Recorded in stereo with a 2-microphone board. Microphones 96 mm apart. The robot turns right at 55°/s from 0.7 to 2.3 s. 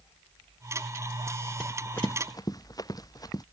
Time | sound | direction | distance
1.6 | running footsteps | 5° left (ahead or behind) | ?